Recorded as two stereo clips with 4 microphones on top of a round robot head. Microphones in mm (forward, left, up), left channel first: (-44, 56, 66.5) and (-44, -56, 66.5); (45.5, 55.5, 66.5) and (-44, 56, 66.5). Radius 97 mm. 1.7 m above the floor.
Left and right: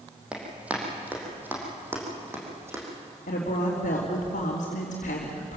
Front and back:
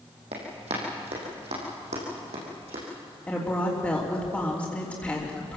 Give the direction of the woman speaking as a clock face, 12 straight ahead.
10 o'clock.